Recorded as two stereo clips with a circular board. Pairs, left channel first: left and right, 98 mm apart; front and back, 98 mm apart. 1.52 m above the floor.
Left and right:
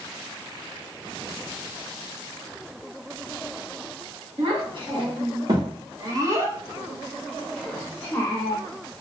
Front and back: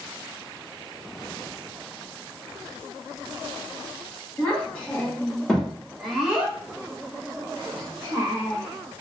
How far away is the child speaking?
About 1.5 m.